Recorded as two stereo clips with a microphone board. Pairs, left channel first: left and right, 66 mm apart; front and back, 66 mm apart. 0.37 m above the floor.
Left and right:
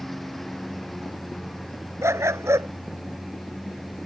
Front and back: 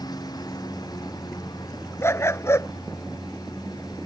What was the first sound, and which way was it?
A lawn mower, 5° left.